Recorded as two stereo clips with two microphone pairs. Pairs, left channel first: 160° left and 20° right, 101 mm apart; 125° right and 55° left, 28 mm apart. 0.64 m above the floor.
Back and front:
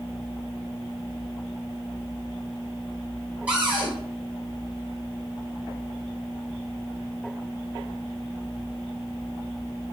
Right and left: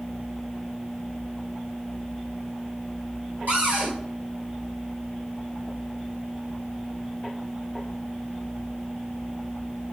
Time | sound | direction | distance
3.5 | a cupboard door | 55° left | 1.8 m